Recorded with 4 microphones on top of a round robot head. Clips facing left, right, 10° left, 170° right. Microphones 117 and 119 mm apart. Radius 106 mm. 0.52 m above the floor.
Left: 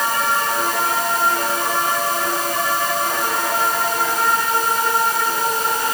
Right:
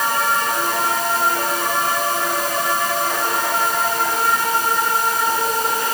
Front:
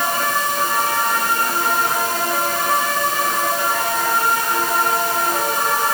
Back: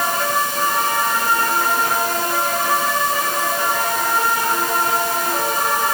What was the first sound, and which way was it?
Only background noise.